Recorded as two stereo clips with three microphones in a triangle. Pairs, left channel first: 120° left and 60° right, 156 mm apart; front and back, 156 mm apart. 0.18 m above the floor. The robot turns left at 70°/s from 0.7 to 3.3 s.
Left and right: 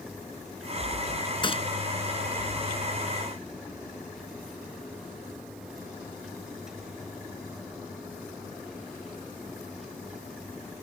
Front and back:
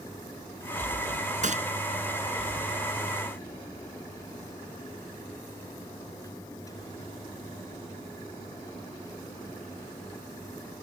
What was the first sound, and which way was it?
A gunshot, 170° left.